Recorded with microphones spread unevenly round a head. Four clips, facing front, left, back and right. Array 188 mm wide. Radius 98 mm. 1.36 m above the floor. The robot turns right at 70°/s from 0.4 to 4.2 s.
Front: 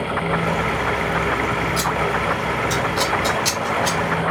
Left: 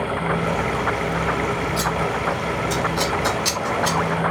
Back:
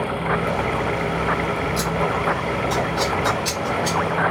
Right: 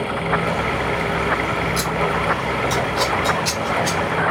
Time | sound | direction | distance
1.8 | scissors | 60° right | 1.1 m